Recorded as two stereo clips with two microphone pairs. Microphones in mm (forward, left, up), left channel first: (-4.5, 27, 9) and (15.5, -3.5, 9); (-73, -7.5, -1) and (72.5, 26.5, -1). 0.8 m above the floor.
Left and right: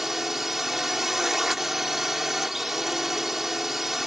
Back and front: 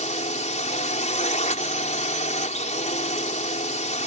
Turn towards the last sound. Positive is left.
turn(degrees=-135)